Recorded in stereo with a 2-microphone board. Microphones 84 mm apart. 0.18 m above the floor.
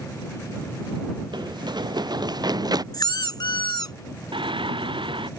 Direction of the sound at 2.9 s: 55° left (ahead or behind).